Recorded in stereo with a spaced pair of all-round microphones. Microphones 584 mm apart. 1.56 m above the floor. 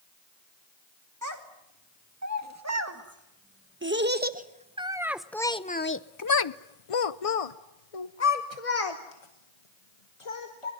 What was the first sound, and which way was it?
A child speaking, 30° right (ahead or behind).